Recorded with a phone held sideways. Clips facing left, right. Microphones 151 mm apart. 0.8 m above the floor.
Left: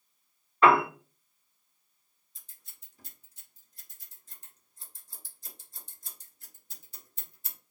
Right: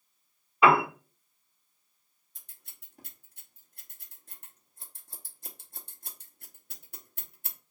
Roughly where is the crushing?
No crushing in this recording.